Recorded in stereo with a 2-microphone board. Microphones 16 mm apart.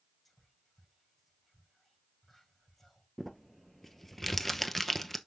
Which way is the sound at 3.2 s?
15° left (ahead or behind).